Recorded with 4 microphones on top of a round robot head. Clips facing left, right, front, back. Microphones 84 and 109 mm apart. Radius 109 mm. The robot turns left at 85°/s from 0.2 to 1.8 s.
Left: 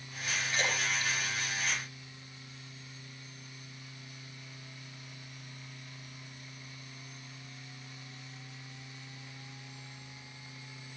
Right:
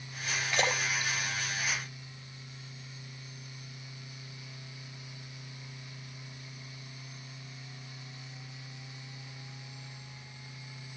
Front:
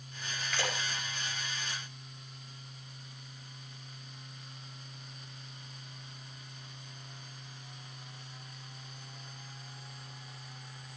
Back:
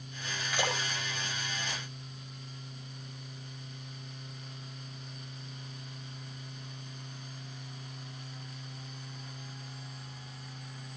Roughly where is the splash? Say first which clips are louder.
Right 3 dB, back 3 dB; right.